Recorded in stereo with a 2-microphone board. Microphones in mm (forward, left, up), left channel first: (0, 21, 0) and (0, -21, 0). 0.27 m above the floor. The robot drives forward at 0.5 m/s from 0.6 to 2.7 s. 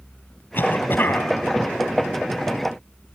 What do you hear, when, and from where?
0.5 s a cough: 55° left (ahead or behind), 1.8 m; by 1.3 s 50° left (ahead or behind), 1.8 m